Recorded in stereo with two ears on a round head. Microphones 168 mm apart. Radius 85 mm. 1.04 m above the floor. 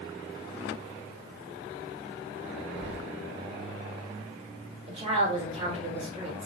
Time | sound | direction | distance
2.8 | keys jangling | 55° right (ahead or behind) | 0.6 m
4.9 | a woman speaking | 35° right (ahead or behind) | 2 m